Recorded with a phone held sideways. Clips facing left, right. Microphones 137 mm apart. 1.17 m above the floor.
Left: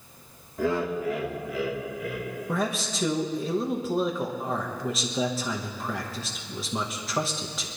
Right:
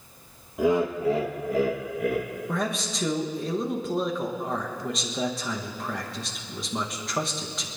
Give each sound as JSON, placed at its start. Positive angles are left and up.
{"t": 0.6, "sound": "laughter", "side_deg": -15, "distance_m": 1.6}
{"t": 2.5, "sound": "a man speaking", "side_deg": 0, "distance_m": 1.4}